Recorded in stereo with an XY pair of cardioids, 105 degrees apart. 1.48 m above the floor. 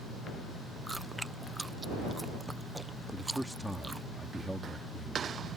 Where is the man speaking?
5° right.